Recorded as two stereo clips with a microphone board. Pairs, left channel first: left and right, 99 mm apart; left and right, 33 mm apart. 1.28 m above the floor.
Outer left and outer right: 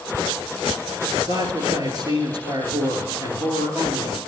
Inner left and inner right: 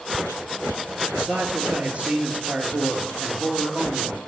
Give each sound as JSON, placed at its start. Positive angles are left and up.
{"t": 1.1, "sound": "a man speaking", "side_deg": -50, "distance_m": 2.5}